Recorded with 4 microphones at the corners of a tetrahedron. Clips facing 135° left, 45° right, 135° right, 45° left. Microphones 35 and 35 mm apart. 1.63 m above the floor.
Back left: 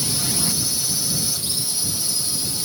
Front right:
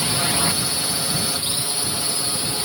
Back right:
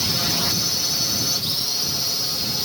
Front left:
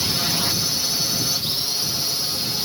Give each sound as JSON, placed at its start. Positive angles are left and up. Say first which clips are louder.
{"t": 0.0, "sound": "a drone", "louder": "front right 4 dB, even", "azimuth_deg": -40}